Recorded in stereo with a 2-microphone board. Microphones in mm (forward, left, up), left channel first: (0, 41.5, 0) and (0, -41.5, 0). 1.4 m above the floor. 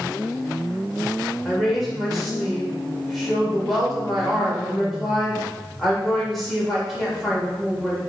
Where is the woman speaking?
Centre (ahead or behind), 1.7 m.